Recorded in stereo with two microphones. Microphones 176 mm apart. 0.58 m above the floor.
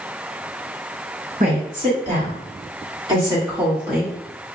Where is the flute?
I don't hear a flute.